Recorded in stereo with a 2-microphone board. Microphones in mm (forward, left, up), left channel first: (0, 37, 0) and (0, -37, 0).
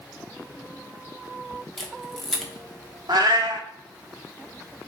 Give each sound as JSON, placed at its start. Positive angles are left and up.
{"t": 1.8, "sound": "a camera shutter", "side_deg": 5, "distance_m": 0.8}
{"t": 3.1, "sound": "a cat meowing", "side_deg": -70, "distance_m": 0.6}